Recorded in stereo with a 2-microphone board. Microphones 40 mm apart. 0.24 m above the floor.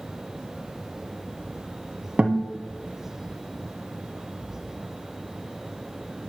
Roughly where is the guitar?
Right.